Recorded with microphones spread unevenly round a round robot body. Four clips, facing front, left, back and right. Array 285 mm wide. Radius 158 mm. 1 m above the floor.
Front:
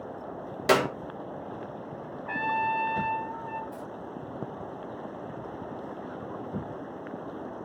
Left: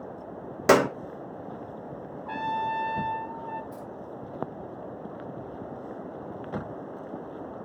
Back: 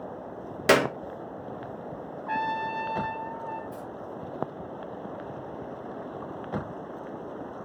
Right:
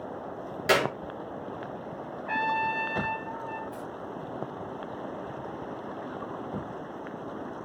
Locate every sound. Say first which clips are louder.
0.7 s a clap: left 5 dB, back 2 dB; 110° left, 0.8 m
2.3 s a trumpet: right 1 dB, front 1 dB; 135° left, 0.7 m
3.7 s keys jangling: right 2 dB, back 1 dB; 110° left, 3.5 m